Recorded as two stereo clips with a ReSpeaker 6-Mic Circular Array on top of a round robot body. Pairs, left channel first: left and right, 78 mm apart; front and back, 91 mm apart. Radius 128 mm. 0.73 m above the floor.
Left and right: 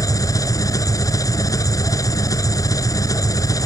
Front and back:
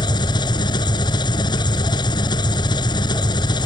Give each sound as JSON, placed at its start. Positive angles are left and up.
{"t": 0.0, "sound": "an engine running", "azimuth_deg": 40}